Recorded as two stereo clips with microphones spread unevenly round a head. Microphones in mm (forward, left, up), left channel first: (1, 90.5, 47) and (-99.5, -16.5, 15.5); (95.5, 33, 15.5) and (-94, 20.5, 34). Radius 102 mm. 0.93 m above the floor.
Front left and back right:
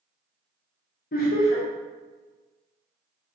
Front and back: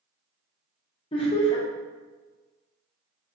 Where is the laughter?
55° left, 1.1 m.